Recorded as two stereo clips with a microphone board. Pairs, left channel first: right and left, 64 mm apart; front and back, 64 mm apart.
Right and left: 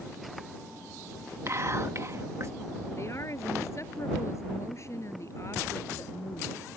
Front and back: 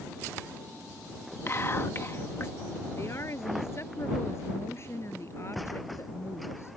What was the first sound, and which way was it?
Whispering, 50° left.